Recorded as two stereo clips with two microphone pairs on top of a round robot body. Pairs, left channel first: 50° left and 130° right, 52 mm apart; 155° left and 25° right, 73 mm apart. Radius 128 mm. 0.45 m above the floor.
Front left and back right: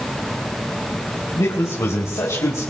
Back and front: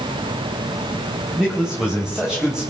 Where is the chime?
I don't hear a chime.